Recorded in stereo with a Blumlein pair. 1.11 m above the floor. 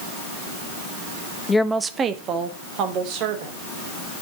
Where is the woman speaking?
15° left, 0.7 m; by 3.6 s 45° right, 3.5 m.